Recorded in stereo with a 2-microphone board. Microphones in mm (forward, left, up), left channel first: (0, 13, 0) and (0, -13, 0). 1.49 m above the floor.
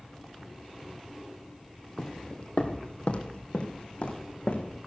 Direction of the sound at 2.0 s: 35° left (ahead or behind).